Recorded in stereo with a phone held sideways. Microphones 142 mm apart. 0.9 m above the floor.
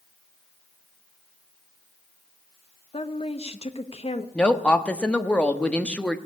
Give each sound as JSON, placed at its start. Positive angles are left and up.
{"t": 2.9, "sound": "a woman speaking", "side_deg": 45, "distance_m": 1.1}
{"t": 4.3, "sound": "a woman speaking", "side_deg": 10, "distance_m": 1.1}